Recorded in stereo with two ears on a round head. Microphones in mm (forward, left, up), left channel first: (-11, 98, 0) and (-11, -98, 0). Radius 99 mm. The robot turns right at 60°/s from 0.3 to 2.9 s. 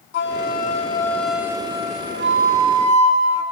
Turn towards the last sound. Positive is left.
turn(degrees=-85)